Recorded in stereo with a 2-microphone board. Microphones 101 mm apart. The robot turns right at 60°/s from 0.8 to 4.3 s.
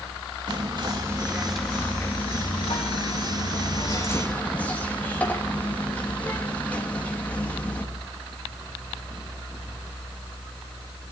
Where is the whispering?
45° right, 1.8 m; by 7.8 s 165° left, 1.8 m.